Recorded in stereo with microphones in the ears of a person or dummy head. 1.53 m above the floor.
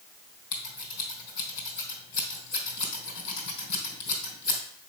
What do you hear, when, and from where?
0.5 s scissors: 65° left (ahead or behind), 3 m